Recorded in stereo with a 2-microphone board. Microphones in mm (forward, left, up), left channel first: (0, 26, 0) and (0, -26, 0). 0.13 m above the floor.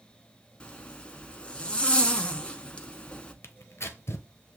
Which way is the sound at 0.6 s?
20° left (ahead or behind).